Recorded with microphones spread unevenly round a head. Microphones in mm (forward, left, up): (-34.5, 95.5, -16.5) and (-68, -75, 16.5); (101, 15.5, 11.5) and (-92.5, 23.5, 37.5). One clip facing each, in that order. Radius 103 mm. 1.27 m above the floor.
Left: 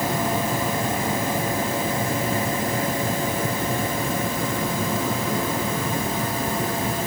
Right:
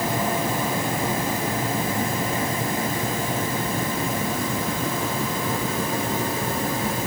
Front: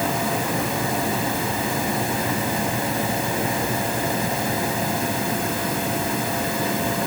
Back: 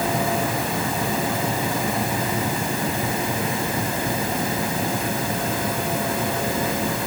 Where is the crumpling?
I don't hear crumpling.